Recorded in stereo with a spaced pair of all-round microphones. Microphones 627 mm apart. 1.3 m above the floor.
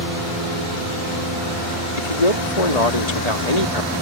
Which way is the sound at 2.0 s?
85° left.